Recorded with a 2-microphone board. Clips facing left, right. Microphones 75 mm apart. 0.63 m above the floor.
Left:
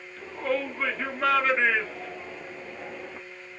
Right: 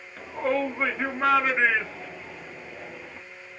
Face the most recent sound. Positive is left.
turn(degrees=30)  # may be behind; listen again after turning